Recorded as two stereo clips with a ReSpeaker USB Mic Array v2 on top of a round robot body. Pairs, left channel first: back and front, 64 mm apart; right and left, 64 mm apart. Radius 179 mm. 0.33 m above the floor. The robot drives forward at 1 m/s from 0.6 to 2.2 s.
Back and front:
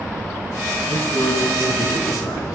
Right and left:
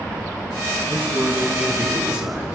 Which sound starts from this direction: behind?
A man speaking, at 0.9 s.